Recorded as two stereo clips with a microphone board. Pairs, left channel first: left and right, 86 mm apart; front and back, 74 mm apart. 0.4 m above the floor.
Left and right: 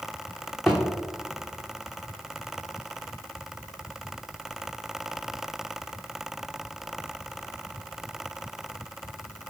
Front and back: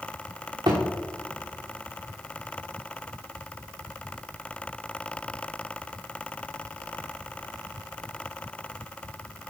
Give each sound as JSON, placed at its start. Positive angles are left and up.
{"t": 0.7, "sound": "a thud", "azimuth_deg": 175, "distance_m": 2.5}